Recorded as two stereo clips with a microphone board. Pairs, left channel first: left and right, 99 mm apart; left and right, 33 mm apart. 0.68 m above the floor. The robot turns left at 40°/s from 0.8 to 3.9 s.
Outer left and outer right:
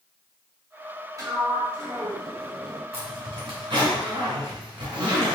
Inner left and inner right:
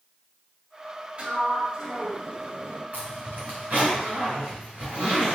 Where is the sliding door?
80° right, 1.3 m; by 2.8 s 145° right, 1.3 m.